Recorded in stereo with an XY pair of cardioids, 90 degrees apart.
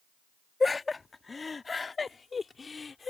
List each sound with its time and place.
0.6 s laughter: 30° left; by 3.1 s 40° left